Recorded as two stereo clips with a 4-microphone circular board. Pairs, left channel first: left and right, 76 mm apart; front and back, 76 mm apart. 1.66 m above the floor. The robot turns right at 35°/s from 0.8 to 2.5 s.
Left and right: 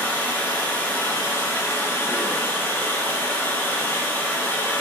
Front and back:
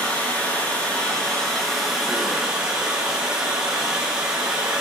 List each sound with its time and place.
0.0 s running water: 50° left, 0.8 m; by 4.8 s 110° left, 0.8 m